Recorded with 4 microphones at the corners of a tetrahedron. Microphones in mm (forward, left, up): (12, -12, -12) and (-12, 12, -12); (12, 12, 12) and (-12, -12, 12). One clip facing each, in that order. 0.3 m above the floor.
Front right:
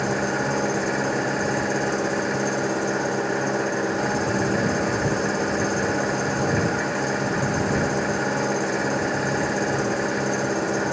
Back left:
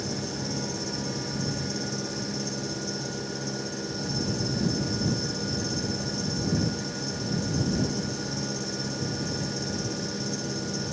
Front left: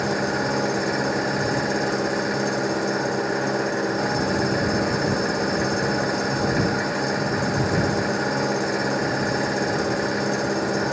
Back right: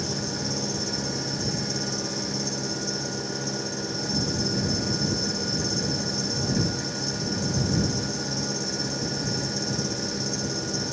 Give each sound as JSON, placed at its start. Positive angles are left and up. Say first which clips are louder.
{"t": 0.0, "sound": "an engine running", "louder": "front right 10 dB, front left 8 dB", "azimuth_deg": -5}